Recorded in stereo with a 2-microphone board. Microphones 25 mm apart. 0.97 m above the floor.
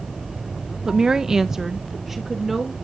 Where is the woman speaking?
25° right (ahead or behind), 0.6 m; by 2.7 s 10° right (ahead or behind), 1.9 m.